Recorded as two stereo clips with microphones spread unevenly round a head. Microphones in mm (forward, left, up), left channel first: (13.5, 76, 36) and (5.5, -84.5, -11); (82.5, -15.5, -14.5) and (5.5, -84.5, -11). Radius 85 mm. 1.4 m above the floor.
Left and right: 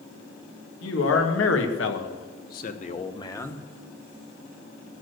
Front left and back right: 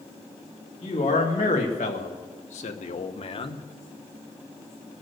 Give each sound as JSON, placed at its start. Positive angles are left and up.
{"t": 0.8, "sound": "a man speaking", "azimuth_deg": 90, "distance_m": 2.5}